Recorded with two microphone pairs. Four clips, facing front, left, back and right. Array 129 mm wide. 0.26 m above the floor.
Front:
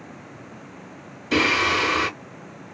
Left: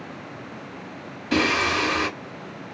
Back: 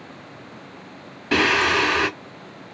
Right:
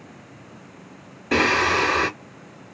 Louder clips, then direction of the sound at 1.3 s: Right 2 dB, back 2 dB; 145° right.